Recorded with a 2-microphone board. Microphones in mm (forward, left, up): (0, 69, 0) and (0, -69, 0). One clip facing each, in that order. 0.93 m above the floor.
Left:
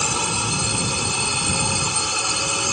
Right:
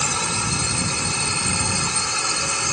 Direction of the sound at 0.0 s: 15° left (ahead or behind).